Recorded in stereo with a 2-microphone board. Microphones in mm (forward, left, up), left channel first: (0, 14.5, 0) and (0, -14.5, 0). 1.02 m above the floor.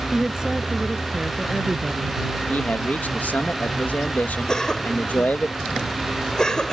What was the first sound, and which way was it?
A woman speaking, 20° right (ahead or behind).